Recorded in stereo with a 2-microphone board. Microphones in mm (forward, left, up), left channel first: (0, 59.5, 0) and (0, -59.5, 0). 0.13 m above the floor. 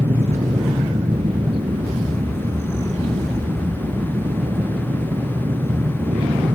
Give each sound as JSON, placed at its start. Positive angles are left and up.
{"t": 0.0, "sound": "an aircraft", "side_deg": -60}